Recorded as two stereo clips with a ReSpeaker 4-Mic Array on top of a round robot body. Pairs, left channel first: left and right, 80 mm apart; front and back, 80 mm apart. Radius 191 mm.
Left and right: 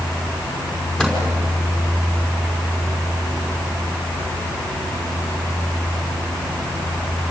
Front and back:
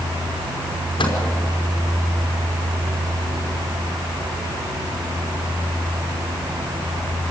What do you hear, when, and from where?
1.0 s a microwave: 10° left, 5 m